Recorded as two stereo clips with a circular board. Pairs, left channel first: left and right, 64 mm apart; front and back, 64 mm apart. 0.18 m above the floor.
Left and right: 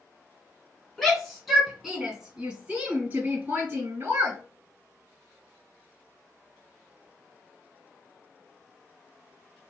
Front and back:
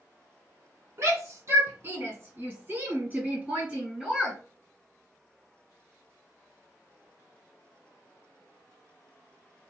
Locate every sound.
1.0 s a shout: 170° left, 2 m; by 4.4 s 110° right, 2 m